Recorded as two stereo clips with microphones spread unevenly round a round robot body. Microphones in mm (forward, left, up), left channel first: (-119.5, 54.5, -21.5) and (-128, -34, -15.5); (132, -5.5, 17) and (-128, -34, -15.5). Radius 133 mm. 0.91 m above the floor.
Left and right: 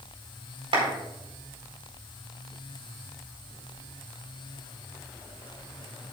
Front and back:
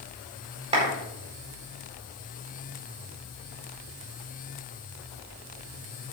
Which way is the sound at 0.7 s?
105° right.